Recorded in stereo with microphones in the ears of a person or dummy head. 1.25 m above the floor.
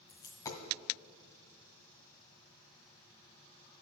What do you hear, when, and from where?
0.1 s a dropped coin: 20° left (ahead or behind), 1.5 m